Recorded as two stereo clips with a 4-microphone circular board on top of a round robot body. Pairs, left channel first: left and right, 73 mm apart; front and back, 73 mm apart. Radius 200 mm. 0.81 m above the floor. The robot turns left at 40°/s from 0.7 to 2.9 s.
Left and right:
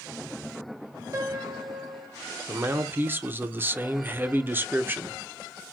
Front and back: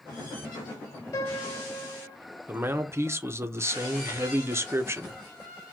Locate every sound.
1.1 s a piano: 40° right, 1.7 m; by 2.2 s 80° right, 1.7 m
2.5 s a man speaking: 125° right, 0.9 m; by 5.2 s 140° right, 0.9 m